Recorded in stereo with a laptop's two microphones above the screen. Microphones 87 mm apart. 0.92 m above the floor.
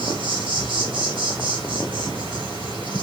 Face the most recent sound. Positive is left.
turn(degrees=-65)  # may be behind; listen again after turning